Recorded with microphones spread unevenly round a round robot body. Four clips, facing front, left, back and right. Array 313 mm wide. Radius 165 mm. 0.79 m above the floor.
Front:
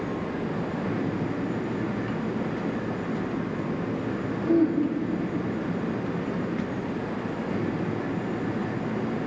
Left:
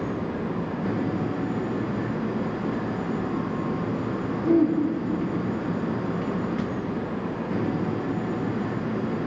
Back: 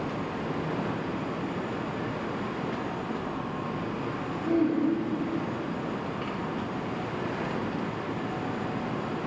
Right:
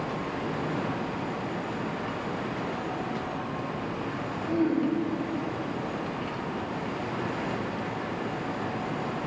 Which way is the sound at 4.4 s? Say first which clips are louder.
Left 6 dB, front 3 dB; 60° left.